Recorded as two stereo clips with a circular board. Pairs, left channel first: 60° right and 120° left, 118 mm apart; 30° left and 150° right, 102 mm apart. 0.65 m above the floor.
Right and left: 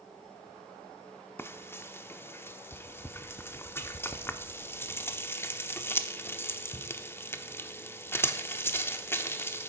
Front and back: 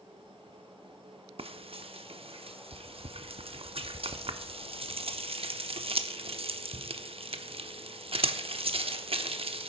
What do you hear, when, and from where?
1.4 s frying: 130° right, 0.7 m